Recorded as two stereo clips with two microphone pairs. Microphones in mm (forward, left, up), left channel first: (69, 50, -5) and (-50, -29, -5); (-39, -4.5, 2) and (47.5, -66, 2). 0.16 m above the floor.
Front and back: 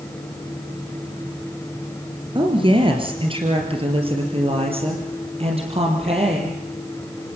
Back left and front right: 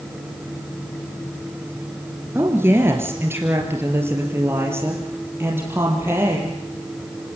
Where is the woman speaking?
100° right, 3 m.